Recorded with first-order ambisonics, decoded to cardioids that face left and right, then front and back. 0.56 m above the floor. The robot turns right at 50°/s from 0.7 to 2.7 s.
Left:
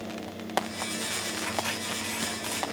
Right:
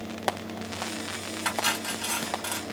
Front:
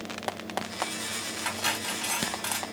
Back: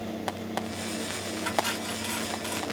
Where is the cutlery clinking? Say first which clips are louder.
Right 8 dB, back 1 dB; 70° right, 2.0 m; by 2.6 s 10° right, 2.0 m.